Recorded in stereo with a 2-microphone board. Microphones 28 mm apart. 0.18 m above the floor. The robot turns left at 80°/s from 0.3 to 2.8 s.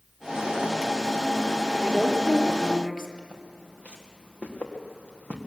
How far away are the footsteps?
About 4 m.